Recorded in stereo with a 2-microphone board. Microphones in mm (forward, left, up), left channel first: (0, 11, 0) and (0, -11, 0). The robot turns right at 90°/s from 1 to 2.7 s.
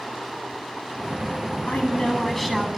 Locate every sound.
1.7 s a woman speaking: 95° left, 9 m; by 2.8 s 175° right, 9 m